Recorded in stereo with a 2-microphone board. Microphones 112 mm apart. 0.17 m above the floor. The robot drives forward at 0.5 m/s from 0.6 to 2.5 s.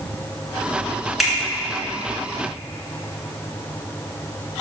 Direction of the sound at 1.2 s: Centre (ahead or behind).